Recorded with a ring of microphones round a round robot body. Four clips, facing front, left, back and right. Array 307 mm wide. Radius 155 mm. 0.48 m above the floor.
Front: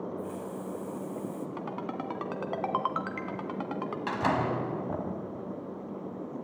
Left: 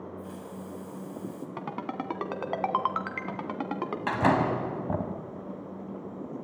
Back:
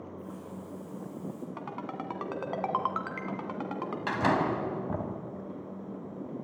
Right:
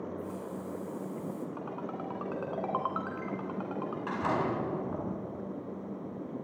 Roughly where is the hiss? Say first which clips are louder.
Right 2 dB, front 5 dB; ahead.